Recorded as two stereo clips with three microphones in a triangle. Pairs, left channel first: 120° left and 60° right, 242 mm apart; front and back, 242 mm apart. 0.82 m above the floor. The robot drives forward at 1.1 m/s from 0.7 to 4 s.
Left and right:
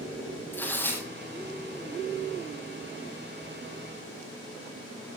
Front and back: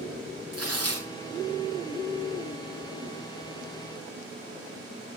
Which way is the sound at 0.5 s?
160° right.